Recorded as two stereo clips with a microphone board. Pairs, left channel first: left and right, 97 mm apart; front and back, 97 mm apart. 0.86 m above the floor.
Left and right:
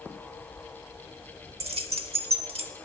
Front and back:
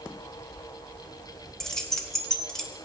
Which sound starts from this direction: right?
Keys jangling, at 1.6 s.